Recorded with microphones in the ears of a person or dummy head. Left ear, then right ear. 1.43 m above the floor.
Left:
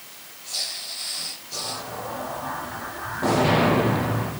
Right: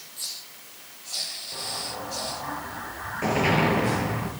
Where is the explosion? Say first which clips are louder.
Left 3 dB; 65° right (ahead or behind), 5 m.